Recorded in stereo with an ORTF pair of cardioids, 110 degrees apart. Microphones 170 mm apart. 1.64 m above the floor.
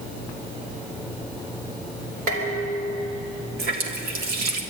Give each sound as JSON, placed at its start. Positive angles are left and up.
{"t": 2.3, "sound": "dishes clattering", "azimuth_deg": -60, "distance_m": 4.0}
{"t": 3.6, "sound": "a running tap", "azimuth_deg": -65, "distance_m": 3.0}